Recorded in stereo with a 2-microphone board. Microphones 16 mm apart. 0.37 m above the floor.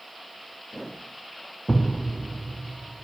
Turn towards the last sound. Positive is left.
turn(degrees=40)  # may be behind; listen again after turning